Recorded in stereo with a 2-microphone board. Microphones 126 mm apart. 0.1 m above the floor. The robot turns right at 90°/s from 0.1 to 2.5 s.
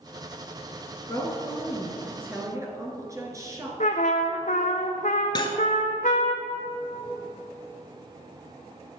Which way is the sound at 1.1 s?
25° left (ahead or behind).